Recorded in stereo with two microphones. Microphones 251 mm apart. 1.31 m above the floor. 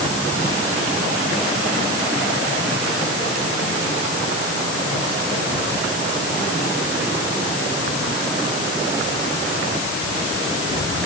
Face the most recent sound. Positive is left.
No sound to turn to.